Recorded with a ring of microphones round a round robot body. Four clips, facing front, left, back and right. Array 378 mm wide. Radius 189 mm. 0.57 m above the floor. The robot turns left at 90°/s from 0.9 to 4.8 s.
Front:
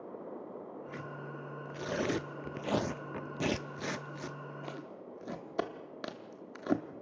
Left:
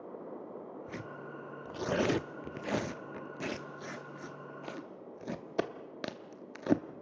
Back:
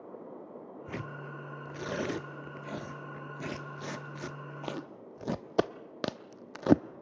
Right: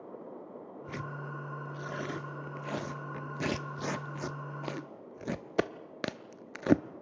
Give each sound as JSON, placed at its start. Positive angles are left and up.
{"t": 0.9, "sound": "tearing paper", "azimuth_deg": -165, "distance_m": 0.6}